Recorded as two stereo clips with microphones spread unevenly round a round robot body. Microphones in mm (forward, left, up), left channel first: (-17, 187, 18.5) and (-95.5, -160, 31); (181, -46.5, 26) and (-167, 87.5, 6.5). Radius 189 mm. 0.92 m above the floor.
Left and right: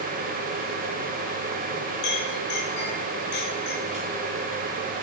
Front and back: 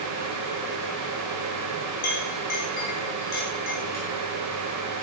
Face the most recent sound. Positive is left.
turn(degrees=45)